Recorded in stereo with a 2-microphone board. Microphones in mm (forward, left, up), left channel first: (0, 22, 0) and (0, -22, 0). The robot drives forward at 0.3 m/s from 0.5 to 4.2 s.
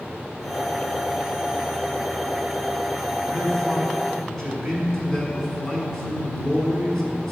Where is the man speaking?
10° left (ahead or behind), 1.3 m.